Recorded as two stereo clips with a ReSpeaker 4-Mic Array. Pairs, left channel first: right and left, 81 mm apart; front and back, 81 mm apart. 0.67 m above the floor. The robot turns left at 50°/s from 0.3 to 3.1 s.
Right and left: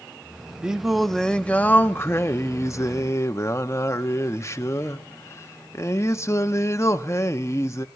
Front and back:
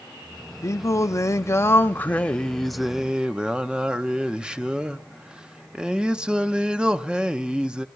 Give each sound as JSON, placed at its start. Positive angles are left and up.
{"t": 0.6, "sound": "singing", "azimuth_deg": 15, "distance_m": 0.6}